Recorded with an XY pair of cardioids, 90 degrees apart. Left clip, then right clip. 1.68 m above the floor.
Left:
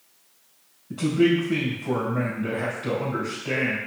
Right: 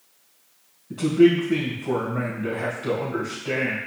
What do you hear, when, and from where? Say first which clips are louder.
0.9 s a man speaking: right 4 dB; 5° right, 1.8 m